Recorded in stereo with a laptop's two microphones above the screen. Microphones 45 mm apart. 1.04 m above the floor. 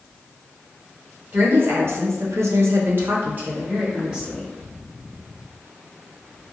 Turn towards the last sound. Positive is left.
turn(degrees=-20)  # may be behind; listen again after turning